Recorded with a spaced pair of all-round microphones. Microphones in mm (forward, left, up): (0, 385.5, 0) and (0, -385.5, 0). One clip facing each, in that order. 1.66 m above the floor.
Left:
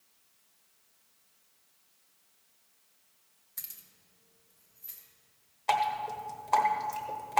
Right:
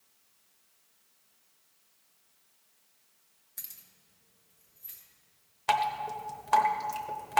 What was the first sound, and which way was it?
Keys jangling, 35° left (ahead or behind).